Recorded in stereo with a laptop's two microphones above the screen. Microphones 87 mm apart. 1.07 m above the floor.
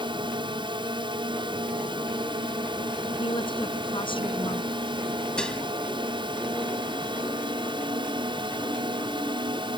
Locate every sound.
0.0 s a drone: 70° right (ahead or behind)
3.2 s a woman speaking: 75° left (ahead or behind)
5.4 s dishes clattering: 10° left (ahead or behind)